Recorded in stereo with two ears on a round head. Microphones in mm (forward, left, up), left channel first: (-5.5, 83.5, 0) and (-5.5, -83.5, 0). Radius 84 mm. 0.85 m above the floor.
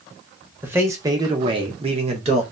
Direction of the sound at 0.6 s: 10° right (ahead or behind).